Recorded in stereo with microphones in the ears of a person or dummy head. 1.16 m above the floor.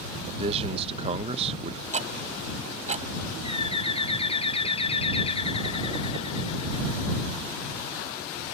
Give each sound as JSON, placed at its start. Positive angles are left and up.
{"t": 0.4, "sound": "a man speaking", "side_deg": -30}
{"t": 1.9, "sound": "ticking", "side_deg": -35}
{"t": 3.4, "sound": "a bird", "side_deg": 30}